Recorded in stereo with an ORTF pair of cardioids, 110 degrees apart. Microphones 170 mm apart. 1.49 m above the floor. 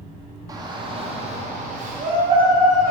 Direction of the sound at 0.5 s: 20° right.